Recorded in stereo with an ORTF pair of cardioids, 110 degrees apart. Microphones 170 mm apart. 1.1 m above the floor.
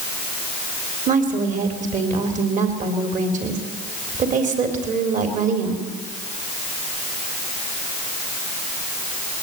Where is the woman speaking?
50° right, 4 m.